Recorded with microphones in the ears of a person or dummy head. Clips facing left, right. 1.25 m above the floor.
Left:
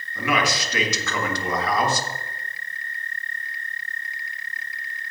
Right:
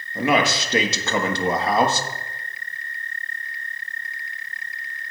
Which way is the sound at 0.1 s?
20° right (ahead or behind).